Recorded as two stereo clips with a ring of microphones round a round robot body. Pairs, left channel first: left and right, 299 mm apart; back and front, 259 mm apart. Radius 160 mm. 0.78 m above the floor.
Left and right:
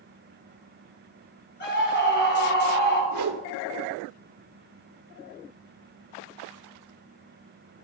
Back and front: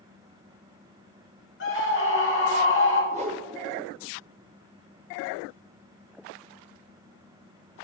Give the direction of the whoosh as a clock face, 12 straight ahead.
2 o'clock.